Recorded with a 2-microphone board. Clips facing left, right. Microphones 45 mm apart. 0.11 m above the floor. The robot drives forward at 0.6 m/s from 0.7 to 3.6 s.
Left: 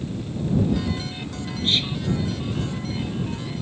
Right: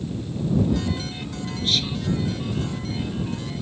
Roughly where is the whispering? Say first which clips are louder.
Left 1 dB; left.